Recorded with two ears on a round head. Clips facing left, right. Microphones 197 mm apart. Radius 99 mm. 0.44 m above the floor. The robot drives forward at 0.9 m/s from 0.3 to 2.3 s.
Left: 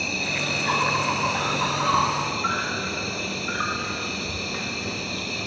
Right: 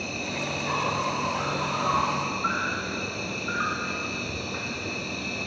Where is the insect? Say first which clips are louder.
Left 1 dB; 75° left (ahead or behind), 2 m; by 5.5 s 50° left (ahead or behind), 2.5 m.